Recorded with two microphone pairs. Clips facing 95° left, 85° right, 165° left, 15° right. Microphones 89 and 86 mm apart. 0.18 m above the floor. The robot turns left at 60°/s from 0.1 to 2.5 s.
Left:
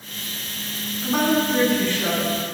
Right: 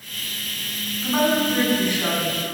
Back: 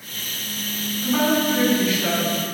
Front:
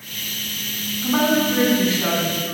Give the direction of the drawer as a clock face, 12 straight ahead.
No drawer in this recording.